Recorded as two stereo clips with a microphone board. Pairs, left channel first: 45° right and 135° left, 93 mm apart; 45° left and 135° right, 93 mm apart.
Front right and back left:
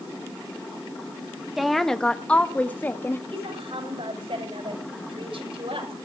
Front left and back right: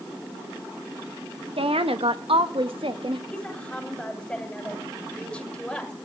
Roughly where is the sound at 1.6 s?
Behind right.